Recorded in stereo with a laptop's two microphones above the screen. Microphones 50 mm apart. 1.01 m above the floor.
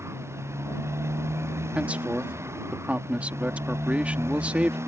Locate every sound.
0.0 s a motorcycle: 65° right (ahead or behind)
1.8 s a man speaking: 30° right (ahead or behind)